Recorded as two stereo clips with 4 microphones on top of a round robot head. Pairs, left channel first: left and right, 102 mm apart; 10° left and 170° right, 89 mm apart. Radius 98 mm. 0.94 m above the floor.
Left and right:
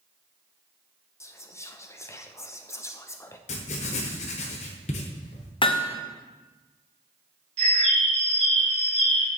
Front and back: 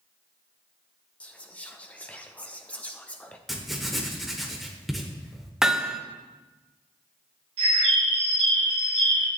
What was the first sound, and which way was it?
Whispering, 70° left.